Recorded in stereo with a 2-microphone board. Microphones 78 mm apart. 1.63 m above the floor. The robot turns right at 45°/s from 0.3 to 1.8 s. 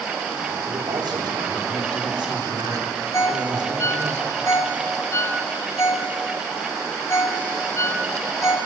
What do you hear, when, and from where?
0.7 s a man speaking: 120° right, 3.5 m; by 4.1 s 70° right, 3.5 m
3.1 s a ringtone: 40° left (ahead or behind), 1.7 m